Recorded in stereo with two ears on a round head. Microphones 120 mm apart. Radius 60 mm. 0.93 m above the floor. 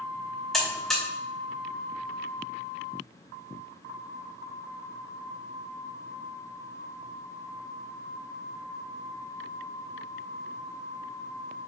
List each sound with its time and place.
0.5 s a buzzer: 5° left (ahead or behind), 1.7 m